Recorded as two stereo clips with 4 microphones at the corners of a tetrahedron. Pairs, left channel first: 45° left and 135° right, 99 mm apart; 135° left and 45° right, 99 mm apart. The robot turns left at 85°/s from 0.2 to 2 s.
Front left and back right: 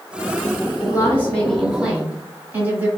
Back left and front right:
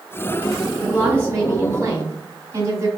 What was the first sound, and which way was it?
A woman speaking, 30° left.